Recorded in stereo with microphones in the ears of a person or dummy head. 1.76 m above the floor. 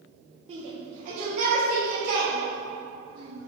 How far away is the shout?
About 1.1 m.